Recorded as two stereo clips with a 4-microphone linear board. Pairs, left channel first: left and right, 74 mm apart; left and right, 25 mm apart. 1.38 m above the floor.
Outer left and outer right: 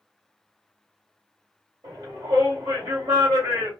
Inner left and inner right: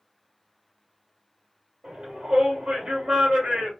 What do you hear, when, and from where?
1.8 s a shout: 70° right (ahead or behind), 1.6 m